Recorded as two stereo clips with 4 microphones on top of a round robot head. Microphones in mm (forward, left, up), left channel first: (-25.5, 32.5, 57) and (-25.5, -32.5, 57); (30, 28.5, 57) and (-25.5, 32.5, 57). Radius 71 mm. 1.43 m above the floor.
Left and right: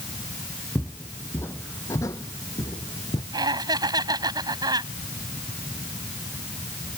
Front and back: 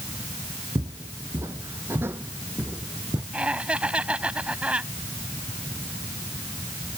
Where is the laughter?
110° right.